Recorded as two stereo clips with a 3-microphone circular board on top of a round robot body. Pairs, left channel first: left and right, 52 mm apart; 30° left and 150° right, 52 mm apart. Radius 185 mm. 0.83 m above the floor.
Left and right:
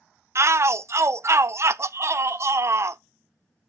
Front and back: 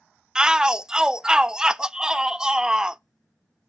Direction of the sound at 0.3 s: 75° right.